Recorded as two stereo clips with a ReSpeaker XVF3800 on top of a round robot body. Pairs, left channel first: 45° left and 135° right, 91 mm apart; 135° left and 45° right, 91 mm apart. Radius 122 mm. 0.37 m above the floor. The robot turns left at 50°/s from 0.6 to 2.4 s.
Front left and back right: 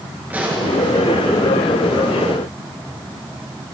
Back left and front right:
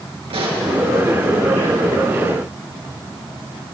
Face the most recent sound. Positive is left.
turn(degrees=-155)